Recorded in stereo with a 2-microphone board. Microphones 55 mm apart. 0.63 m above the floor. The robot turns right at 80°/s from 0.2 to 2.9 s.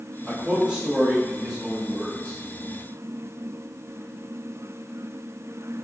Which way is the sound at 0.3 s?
20° right (ahead or behind).